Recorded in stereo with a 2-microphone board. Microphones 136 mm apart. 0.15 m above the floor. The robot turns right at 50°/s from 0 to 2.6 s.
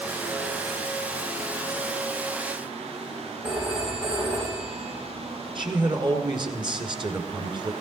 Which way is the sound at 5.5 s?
40° right (ahead or behind).